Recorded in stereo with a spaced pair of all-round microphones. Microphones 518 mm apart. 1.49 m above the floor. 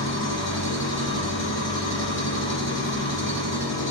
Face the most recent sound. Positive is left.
turn(degrees=60)  # may be behind; listen again after turning